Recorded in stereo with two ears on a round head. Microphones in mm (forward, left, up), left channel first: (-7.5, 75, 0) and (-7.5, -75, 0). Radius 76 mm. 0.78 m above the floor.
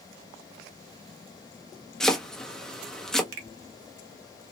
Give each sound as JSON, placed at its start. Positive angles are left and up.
{"t": 2.0, "sound": "chopping", "side_deg": 5, "distance_m": 0.9}
{"t": 3.3, "sound": "a finger snap", "side_deg": -65, "distance_m": 1.2}